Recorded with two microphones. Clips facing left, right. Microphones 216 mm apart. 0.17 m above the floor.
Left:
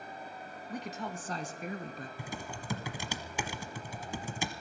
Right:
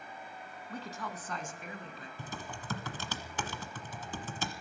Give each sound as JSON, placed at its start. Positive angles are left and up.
{"t": 0.7, "sound": "a woman speaking", "side_deg": 15, "distance_m": 1.2}
{"t": 2.2, "sound": "typing on a keyboard", "side_deg": 10, "distance_m": 1.2}